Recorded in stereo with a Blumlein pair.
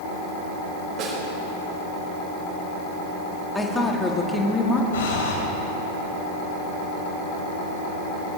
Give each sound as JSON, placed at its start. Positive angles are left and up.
{"t": 1.0, "sound": "a snare drum", "azimuth_deg": -30, "distance_m": 6.0}
{"t": 3.5, "sound": "a woman speaking", "azimuth_deg": 10, "distance_m": 2.0}
{"t": 4.9, "sound": "breathing", "azimuth_deg": 60, "distance_m": 3.5}